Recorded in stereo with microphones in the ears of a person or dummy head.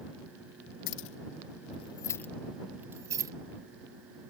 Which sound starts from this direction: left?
Keys jangling, at 0.9 s.